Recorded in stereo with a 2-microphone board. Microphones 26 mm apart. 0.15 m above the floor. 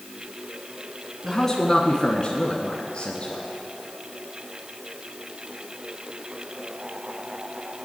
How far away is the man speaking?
About 1.3 m.